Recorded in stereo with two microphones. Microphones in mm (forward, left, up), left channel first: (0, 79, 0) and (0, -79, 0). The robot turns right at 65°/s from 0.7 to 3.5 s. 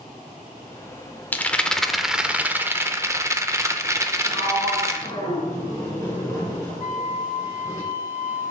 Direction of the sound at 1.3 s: 10° left (ahead or behind).